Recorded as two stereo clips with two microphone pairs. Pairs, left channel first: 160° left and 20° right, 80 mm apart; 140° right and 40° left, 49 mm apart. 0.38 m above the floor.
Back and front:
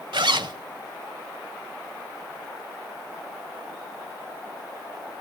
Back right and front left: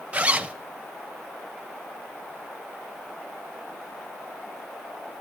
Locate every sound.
0.1 s a zipper: 20° right, 0.5 m